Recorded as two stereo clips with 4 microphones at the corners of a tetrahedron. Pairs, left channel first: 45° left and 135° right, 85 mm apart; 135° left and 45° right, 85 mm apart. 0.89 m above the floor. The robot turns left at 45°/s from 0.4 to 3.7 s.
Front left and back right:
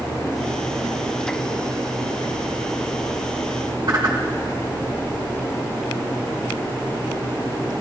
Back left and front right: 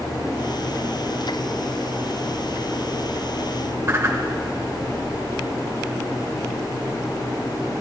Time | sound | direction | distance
3.9 | a whoosh | 100° right | 2 m